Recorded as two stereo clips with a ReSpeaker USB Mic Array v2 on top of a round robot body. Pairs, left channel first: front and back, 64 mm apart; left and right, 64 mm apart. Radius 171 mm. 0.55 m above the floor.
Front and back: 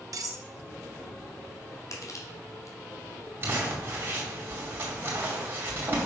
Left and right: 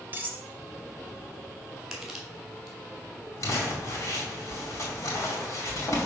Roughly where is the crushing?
Ahead.